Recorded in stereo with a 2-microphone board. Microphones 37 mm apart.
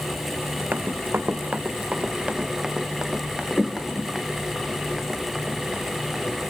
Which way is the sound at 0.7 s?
70° right (ahead or behind).